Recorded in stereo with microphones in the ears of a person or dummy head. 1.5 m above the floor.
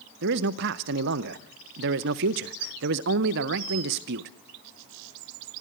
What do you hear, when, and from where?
0.2 s a man speaking: 55° right (ahead or behind), 0.8 m